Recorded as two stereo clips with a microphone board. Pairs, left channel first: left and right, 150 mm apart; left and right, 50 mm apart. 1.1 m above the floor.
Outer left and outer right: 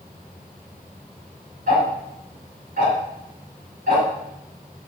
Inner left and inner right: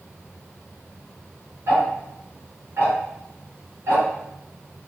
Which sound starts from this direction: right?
Ticking, at 1.7 s.